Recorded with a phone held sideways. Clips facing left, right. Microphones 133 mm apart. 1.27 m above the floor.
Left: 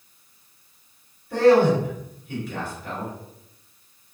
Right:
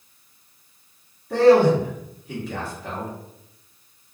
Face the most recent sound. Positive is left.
turn(degrees=-75)  # may be behind; listen again after turning